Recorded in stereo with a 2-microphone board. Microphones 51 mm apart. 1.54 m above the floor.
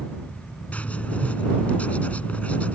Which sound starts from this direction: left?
Writing, at 0.7 s.